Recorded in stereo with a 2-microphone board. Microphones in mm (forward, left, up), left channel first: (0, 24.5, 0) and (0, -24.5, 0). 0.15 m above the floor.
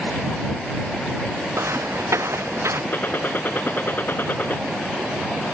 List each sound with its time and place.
1.5 s footsteps: 75° right (ahead or behind); by 2.8 s 70° right (ahead or behind)
2.9 s a gunshot: 45° left (ahead or behind)